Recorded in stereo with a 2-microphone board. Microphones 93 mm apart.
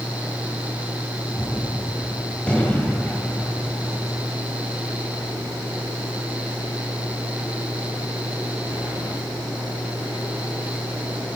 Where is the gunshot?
15° left (ahead or behind), 1.5 m.